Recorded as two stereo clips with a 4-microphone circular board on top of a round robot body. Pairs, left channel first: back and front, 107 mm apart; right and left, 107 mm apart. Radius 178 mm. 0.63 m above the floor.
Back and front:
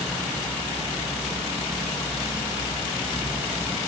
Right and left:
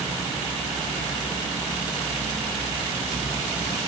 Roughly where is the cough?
No cough in this recording.